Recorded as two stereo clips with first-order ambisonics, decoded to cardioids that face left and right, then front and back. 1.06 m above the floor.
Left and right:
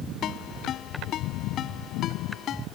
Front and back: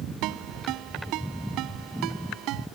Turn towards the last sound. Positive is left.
turn(degrees=145)